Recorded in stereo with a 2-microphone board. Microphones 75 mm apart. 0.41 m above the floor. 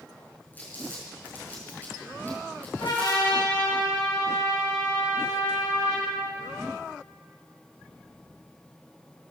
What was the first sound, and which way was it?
Crumpling, 25° left (ahead or behind).